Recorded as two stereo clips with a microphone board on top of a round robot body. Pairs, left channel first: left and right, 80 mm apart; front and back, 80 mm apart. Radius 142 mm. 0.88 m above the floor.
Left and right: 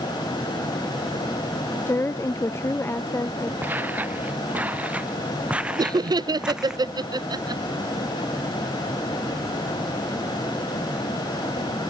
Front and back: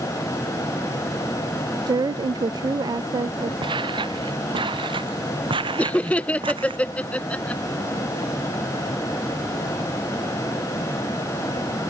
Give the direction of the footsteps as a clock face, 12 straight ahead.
5 o'clock.